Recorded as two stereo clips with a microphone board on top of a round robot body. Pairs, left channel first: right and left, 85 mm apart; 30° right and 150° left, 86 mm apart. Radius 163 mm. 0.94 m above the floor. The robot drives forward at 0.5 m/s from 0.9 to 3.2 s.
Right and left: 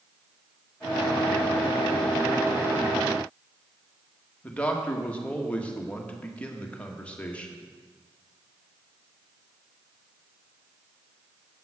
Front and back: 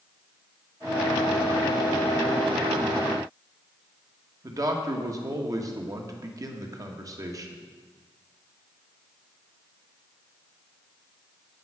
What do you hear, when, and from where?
4.4 s a man speaking: 165° right, 1.7 m